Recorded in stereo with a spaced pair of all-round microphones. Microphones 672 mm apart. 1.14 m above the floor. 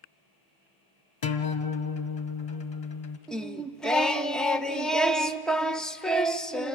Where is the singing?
Centre (ahead or behind), 0.6 m.